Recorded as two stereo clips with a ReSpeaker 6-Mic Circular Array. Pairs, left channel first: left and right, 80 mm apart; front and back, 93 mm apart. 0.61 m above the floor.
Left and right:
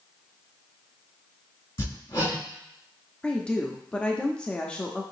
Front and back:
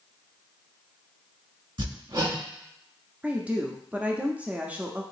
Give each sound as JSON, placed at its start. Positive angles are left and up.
{"t": 1.8, "sound": "hammering", "azimuth_deg": 140, "distance_m": 2.5}
{"t": 3.2, "sound": "a woman speaking", "azimuth_deg": 145, "distance_m": 0.6}